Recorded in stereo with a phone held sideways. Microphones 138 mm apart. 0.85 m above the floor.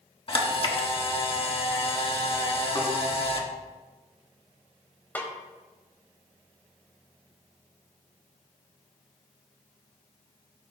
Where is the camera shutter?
40° left (ahead or behind), 1.4 m.